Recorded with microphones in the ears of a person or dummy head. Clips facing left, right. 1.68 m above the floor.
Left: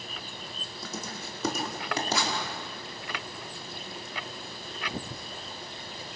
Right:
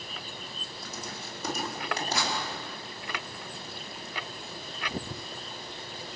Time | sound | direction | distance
0.8 | writing | 75° left (ahead or behind) | 5 m